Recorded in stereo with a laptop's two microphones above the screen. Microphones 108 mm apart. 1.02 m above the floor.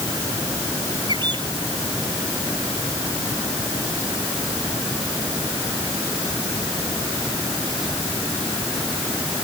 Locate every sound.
1.1 s a bird: 45° right (ahead or behind)